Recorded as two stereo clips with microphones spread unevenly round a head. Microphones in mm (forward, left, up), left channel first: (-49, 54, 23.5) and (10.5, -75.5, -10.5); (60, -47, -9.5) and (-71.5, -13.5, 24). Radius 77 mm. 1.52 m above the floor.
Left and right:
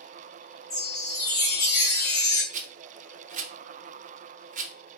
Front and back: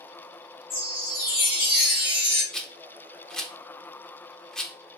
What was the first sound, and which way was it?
A chime, 45° left.